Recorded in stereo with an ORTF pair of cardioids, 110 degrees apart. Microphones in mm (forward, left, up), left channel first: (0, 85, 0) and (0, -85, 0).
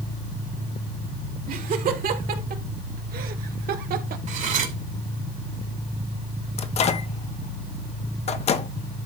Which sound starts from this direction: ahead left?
A microwave, at 6.6 s.